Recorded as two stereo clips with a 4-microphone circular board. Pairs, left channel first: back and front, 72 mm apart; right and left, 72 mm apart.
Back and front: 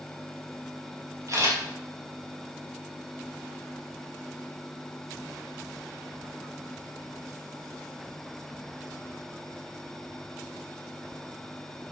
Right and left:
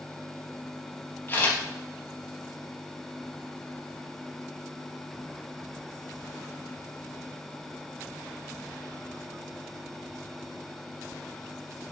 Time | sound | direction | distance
1.3 | a camera shutter | 35° right | 4.5 m